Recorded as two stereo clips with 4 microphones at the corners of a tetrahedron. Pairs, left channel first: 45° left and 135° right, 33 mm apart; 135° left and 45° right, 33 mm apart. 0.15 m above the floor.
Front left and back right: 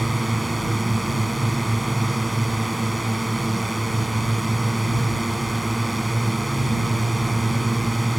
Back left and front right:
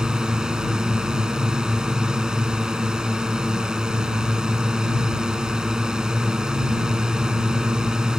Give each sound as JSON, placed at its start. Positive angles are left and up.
{"t": 0.0, "sound": "a drone", "azimuth_deg": -45}